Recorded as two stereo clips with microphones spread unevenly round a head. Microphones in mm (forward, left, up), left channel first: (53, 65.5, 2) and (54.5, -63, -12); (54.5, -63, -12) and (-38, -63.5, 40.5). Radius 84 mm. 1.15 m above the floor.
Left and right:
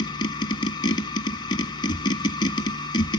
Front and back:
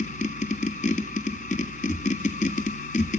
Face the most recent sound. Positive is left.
turn(degrees=50)